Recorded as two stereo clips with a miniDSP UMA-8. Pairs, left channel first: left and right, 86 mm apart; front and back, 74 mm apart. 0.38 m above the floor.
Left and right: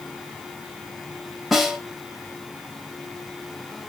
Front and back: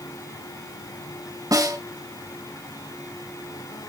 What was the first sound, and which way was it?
A snare drum, straight behind.